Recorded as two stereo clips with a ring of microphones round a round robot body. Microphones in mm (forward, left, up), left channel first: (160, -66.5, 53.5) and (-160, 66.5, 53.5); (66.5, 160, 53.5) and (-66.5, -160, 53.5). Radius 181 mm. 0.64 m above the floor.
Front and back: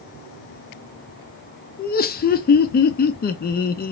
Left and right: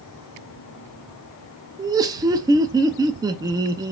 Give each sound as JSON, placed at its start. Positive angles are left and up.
{"t": 1.8, "sound": "laughter", "azimuth_deg": -45, "distance_m": 0.5}